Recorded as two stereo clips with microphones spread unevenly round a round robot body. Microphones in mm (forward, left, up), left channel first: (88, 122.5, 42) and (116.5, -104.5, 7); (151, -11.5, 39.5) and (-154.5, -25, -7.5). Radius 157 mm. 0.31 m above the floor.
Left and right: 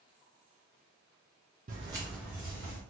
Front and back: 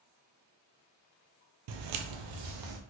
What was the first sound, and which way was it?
Footsteps, 150° right.